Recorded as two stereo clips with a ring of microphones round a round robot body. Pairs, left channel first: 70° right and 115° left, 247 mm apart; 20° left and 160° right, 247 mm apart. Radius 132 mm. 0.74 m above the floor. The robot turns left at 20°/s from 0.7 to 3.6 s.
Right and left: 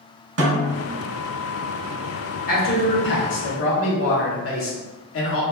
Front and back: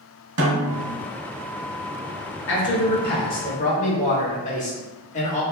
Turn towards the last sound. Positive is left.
turn(degrees=-35)